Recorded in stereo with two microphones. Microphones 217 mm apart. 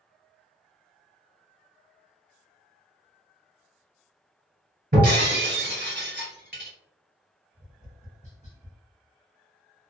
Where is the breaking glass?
45° right (ahead or behind), 1.8 m.